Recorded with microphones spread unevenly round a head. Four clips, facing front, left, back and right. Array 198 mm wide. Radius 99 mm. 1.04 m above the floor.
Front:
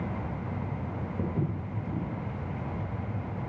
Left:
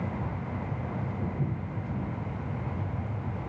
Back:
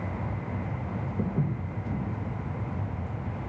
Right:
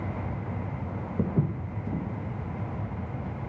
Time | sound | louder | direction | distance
1.2 | footsteps | right 4 dB, back 2 dB | 95° right | 1.9 m